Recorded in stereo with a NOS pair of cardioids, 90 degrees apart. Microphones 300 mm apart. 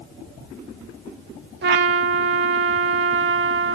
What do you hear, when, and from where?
1.6 s a trumpet: 40° right, 0.6 m